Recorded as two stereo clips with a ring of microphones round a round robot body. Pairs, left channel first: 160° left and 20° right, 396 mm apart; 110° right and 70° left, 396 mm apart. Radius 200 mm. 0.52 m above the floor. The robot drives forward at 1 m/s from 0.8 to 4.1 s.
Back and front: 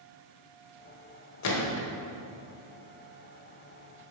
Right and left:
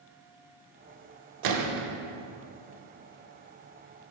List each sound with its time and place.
1.4 s a gunshot: 105° left, 0.9 m; by 1.9 s 125° left, 1.1 m